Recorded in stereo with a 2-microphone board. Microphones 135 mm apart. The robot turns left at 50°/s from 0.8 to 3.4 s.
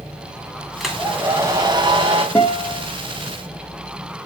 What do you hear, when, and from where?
0.8 s a hair dryer: straight ahead, 2.5 m; by 2.2 s 75° right, 2.5 m
2.4 s a guitar: 15° left (ahead or behind), 2.5 m; by 2.9 s 10° right (ahead or behind), 2.5 m